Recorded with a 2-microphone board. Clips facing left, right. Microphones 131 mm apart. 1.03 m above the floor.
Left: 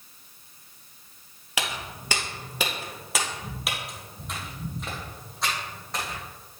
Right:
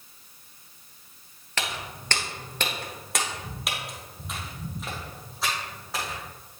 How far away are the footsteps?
About 1.0 m.